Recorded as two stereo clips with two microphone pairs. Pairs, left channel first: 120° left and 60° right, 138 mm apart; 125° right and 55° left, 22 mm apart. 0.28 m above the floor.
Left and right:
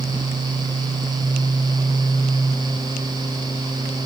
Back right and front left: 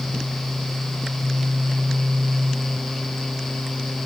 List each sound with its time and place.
Only background noise.